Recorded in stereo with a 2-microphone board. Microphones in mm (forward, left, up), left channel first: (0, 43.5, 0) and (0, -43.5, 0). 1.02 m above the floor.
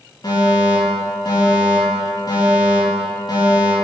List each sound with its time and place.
0.2 s a fire alarm: 55° left (ahead or behind), 3 m